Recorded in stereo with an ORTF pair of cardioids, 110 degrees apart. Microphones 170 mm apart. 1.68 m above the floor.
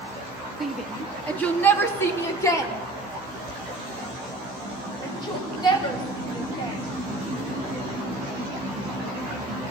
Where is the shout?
Straight ahead, 2.5 m; by 6.8 s 30° left, 11 m.